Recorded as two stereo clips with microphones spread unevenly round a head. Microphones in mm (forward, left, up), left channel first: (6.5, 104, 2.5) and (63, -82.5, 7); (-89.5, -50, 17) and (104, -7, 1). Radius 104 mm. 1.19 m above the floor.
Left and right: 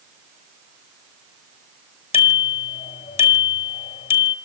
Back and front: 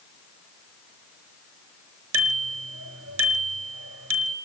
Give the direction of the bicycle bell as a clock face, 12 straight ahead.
10 o'clock.